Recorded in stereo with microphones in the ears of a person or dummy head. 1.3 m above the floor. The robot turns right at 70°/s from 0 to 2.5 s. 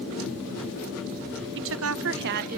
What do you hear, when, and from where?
1.6 s a woman speaking: 120° right, 0.8 m; by 2.6 s 50° right, 0.8 m